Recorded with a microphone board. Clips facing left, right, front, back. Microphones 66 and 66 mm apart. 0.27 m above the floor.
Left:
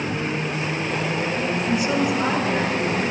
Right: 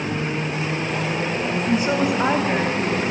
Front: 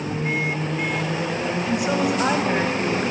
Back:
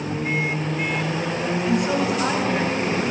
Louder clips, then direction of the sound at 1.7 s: Right 2 dB, back 1 dB; 95° right.